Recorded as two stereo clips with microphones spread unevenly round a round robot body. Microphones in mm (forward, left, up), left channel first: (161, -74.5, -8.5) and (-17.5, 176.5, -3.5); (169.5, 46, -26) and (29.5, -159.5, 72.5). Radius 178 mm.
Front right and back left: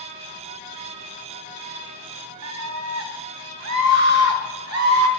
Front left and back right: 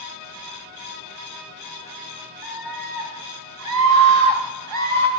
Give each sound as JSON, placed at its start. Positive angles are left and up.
{"t": 2.4, "sound": "a scream", "azimuth_deg": 95, "distance_m": 3.0}